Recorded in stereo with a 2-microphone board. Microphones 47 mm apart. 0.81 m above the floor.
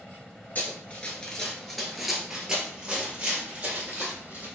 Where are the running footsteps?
40° left (ahead or behind), 0.9 m; by 4.5 s 35° right (ahead or behind), 2 m.